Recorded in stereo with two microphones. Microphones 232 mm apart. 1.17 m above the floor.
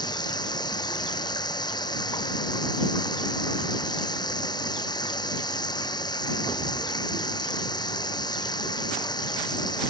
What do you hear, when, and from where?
0.0 s running water: 15° left (ahead or behind)